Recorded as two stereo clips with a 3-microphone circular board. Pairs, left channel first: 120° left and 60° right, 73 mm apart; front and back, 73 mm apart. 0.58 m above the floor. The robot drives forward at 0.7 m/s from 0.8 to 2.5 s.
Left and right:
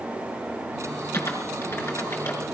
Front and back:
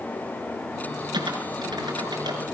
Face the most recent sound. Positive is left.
turn(degrees=175)